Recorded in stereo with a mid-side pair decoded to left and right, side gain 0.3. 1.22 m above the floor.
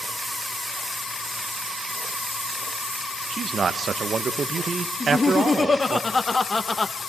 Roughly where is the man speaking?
Ahead right.